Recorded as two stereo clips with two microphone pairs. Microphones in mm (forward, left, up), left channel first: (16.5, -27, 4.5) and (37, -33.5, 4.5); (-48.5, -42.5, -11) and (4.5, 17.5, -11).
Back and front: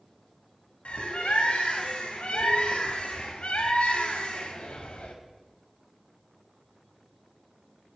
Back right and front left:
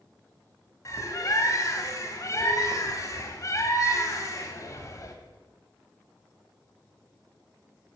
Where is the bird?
Straight behind, 1.4 m.